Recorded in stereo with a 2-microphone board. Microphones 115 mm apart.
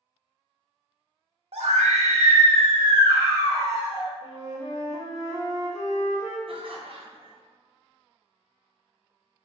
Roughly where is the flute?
Centre.